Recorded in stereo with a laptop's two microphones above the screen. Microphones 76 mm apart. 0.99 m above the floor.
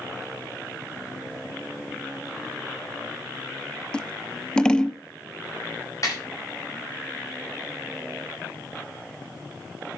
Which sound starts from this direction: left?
A snare drum, at 6.0 s.